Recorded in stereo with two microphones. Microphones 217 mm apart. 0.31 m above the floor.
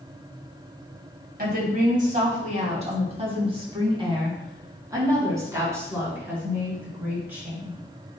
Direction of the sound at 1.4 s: 45° right (ahead or behind).